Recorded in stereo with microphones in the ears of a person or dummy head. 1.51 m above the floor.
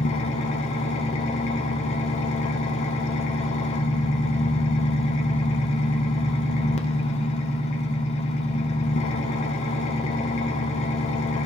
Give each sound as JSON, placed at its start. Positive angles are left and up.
{"t": 0.0, "sound": "an engine running", "side_deg": 40, "distance_m": 0.8}